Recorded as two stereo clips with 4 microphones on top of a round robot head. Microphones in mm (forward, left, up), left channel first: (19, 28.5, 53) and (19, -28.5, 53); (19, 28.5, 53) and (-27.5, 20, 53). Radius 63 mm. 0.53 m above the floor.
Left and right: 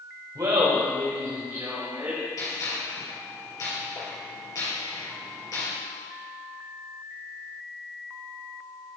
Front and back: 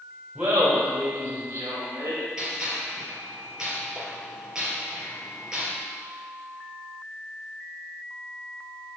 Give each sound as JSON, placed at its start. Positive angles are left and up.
{"t": 0.3, "sound": "laughter", "azimuth_deg": -100, "distance_m": 2.5}
{"t": 2.4, "sound": "a gunshot", "azimuth_deg": 115, "distance_m": 4.0}